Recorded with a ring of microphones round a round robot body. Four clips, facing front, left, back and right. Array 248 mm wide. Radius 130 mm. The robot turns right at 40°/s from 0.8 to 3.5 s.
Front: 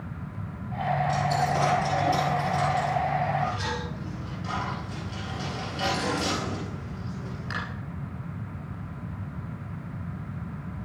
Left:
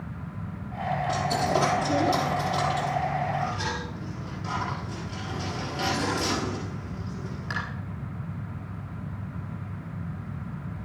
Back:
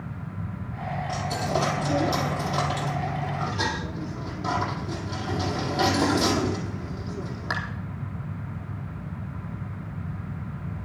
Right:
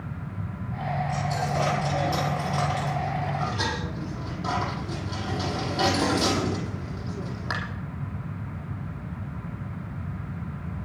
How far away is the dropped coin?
About 6 m.